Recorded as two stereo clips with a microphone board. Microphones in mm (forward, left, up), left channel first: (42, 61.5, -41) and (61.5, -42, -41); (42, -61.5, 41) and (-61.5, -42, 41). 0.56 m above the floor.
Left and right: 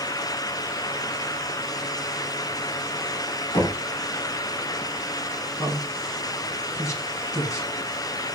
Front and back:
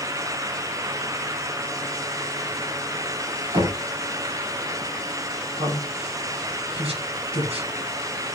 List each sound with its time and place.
3.5 s knocking: 140° left, 4 m
5.6 s a man speaking: 160° left, 3.5 m